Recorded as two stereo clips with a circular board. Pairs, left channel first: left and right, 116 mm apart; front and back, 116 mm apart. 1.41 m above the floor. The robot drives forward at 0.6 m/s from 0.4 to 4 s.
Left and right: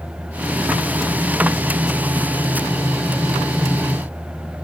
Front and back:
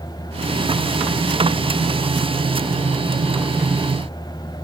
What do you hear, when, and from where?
Only background noise.